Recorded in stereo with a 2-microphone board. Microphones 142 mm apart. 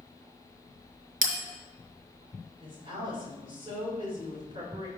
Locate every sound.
1.2 s a bell: 75° right (ahead or behind), 1.9 m
2.6 s a woman speaking: 40° right (ahead or behind), 2.5 m